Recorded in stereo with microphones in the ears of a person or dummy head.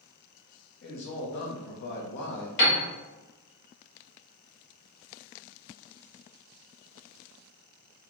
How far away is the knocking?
I don't hear knocking.